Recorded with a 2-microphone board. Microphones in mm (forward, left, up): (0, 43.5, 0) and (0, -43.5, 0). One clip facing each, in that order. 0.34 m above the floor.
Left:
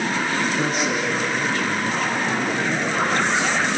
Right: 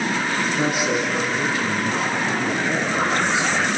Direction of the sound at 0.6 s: 15° right (ahead or behind).